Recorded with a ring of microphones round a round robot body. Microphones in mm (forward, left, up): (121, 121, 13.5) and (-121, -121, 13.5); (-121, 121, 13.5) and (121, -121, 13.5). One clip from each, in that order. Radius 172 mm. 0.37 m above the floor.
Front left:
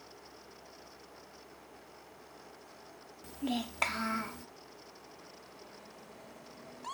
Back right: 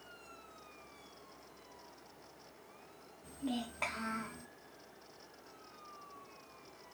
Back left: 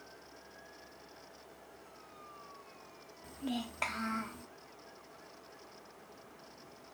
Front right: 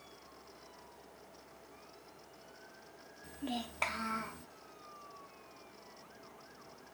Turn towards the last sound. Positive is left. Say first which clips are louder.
# front left 4 dB, even
turn(degrees=40)